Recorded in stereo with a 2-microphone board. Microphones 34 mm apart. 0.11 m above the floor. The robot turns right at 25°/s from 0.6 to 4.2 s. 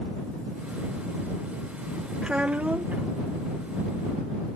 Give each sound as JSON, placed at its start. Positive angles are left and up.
{"t": 2.2, "sound": "a child speaking", "side_deg": -30}